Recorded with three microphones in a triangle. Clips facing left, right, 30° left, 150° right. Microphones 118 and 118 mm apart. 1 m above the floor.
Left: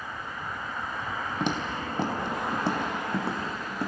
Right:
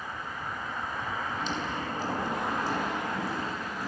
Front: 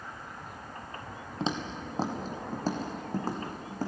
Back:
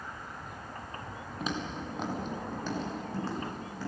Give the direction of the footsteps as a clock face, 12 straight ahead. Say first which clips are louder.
Left 3 dB, front 2 dB; 9 o'clock.